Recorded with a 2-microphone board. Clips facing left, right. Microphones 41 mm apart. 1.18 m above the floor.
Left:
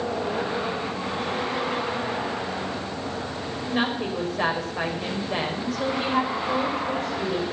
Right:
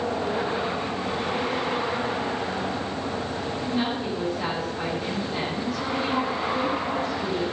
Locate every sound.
3.6 s a woman speaking: 65° left (ahead or behind), 4.5 m